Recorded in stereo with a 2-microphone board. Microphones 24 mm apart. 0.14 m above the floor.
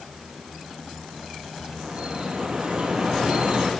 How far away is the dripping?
About 5.5 m.